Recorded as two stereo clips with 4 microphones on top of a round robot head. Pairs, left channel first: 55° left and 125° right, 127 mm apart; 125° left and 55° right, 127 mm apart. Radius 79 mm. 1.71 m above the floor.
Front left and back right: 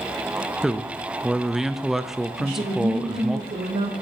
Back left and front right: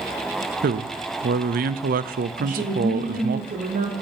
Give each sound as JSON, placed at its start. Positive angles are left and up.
{"t": 0.6, "sound": "a man speaking", "azimuth_deg": -40, "distance_m": 0.6}
{"t": 2.4, "sound": "a woman speaking", "azimuth_deg": -85, "distance_m": 2.5}